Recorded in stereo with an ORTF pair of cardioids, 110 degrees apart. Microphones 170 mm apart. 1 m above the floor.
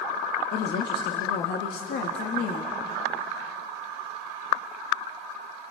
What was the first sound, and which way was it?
A woman speaking, 65° left.